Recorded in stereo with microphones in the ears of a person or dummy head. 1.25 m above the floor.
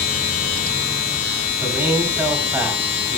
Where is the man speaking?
10° right (ahead or behind), 6 m.